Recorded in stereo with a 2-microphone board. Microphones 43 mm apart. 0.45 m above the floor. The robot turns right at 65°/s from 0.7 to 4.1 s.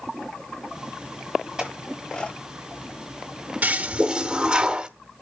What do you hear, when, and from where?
1.6 s a clink: 20° right (ahead or behind), 7.5 m; by 2.4 s 30° left (ahead or behind), 7.5 m
3.6 s a toilet flushing: 65° right, 1.1 m; by 4.9 s 35° right, 1.1 m